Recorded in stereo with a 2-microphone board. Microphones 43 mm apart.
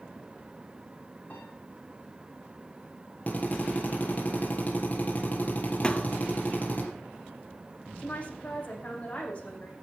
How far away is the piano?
About 6.5 m.